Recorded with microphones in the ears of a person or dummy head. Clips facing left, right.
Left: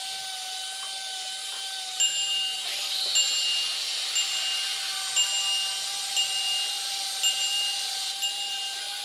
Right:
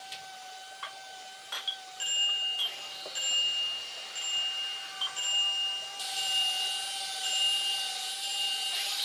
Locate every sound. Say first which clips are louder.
2.0 s a bicycle bell: left 3 dB; 75° left (ahead or behind), 3.5 m